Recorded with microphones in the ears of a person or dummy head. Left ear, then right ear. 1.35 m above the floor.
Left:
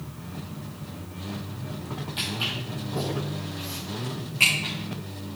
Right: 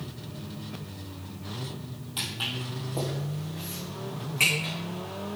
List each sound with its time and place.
2.2 s footsteps: 30° right (ahead or behind), 2.0 m